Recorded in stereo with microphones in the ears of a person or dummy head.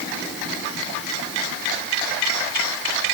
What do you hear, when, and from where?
Only background noise.